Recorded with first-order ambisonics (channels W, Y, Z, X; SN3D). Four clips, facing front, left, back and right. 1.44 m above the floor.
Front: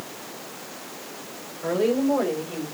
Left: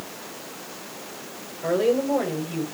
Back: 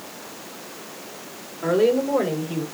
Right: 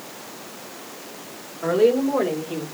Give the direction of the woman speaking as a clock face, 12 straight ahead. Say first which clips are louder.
Right 3 dB, back 3 dB; 4 o'clock.